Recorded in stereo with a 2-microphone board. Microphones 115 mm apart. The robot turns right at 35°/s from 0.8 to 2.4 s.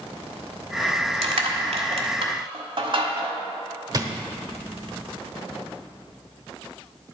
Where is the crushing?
85° right, 1.3 m; by 3.4 s 55° right (ahead or behind), 1.3 m.